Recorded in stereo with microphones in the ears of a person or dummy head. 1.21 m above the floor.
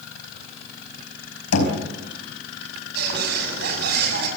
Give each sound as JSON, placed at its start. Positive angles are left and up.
{"t": 1.5, "sound": "knocking", "side_deg": 85, "distance_m": 5.0}
{"t": 3.0, "sound": "a bird", "side_deg": -60, "distance_m": 6.5}